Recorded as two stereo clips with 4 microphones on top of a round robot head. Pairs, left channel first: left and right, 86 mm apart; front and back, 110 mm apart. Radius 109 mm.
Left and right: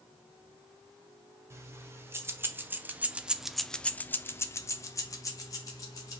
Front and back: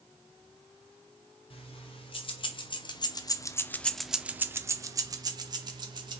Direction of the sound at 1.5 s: 35° right.